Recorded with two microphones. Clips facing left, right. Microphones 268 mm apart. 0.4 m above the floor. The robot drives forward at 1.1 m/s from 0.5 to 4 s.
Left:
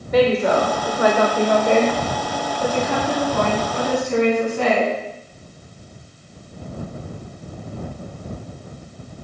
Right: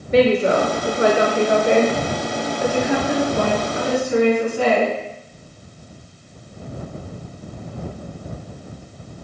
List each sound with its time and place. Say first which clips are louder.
0.1 s a woman speaking: right 1 dB; 30° right (ahead or behind), 1.2 m; by 4.9 s 10° right (ahead or behind), 4 m